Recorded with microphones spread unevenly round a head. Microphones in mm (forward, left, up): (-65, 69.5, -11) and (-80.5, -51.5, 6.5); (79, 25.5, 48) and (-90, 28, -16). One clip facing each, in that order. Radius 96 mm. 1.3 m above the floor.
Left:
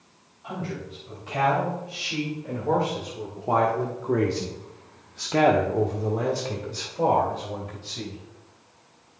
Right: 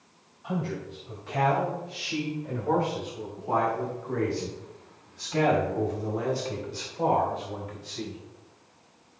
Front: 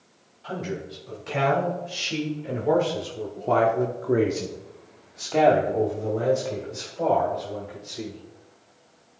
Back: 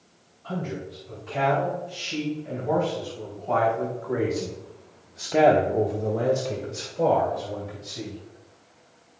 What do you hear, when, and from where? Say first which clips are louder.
0.4 s a man speaking: right 2 dB, even; 5° right, 3.5 m; by 8.2 s 140° left, 3 m